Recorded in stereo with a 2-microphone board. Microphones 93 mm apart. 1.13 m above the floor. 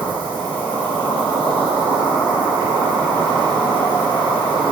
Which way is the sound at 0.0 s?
55° right (ahead or behind).